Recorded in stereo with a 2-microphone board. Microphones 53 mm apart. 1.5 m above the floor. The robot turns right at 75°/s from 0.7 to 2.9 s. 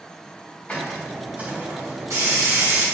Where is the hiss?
150° left, 3.5 m; by 2.9 s 50° right, 3.5 m.